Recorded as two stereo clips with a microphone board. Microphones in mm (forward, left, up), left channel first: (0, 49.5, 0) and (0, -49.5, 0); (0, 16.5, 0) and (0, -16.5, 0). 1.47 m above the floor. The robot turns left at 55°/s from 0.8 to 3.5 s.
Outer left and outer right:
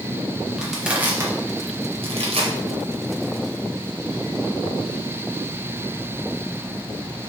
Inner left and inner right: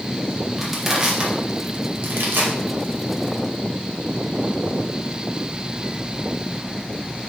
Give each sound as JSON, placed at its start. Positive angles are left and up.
{"t": 0.6, "sound": "crushing", "side_deg": -5, "distance_m": 1.7}